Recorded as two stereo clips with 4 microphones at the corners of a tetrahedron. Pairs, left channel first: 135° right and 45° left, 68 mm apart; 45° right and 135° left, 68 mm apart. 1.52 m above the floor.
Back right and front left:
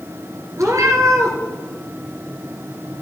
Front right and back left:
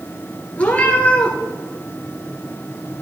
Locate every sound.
0.6 s a cat meowing: 20° left, 2.5 m